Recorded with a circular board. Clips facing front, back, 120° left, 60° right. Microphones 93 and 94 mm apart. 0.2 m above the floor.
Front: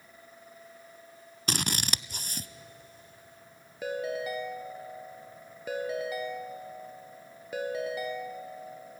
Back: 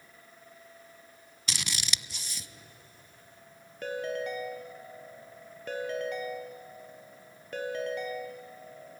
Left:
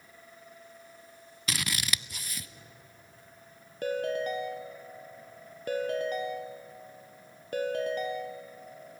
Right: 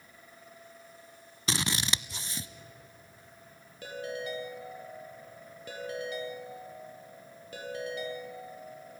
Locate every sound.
1.5 s scissors: 10° right, 0.6 m
3.8 s a ringtone: 85° left, 3 m